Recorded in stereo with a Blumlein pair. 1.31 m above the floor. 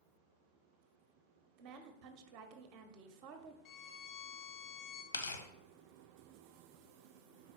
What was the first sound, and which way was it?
A woman speaking, 40° right.